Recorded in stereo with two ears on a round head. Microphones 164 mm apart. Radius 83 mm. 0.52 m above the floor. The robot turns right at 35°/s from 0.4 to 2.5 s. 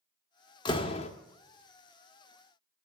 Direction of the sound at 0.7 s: 25° left (ahead or behind).